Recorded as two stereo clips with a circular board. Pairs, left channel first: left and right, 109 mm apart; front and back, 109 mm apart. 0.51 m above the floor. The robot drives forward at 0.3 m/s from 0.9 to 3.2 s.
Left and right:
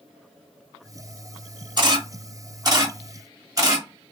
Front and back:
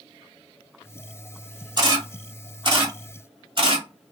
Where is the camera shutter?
135° right, 1.3 m; by 4.1 s 145° right, 1.6 m.